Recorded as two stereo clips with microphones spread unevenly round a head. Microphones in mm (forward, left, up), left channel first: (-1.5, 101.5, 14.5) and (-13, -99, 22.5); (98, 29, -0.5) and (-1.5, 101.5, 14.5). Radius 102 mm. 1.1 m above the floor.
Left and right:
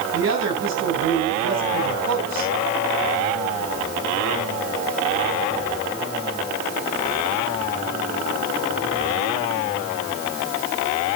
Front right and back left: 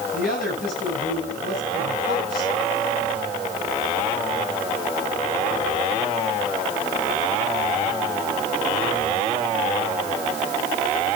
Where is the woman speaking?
65° right, 9 m.